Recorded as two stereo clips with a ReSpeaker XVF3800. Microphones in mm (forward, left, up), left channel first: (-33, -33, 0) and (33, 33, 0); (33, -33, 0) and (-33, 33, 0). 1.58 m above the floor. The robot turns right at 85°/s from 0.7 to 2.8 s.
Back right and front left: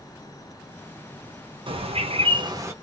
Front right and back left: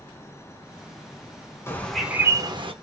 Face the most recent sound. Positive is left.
turn(degrees=115)